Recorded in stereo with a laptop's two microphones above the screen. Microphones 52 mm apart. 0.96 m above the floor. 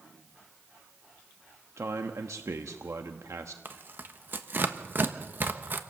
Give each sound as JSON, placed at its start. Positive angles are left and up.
{"t": 1.8, "sound": "a man speaking", "side_deg": -80, "distance_m": 1.1}
{"t": 3.6, "sound": "tearing paper", "side_deg": -40, "distance_m": 1.2}